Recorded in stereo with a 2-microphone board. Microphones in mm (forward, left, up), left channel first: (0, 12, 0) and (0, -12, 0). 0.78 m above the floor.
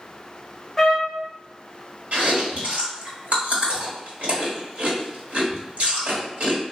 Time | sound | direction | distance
0.8 | a trumpet | 5° left (ahead or behind) | 0.6 m
2.1 | chewing | 80° right | 1.4 m